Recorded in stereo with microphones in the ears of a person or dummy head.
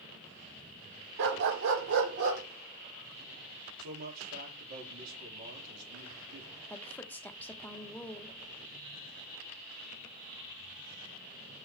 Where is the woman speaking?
10° left (ahead or behind), 1.0 m.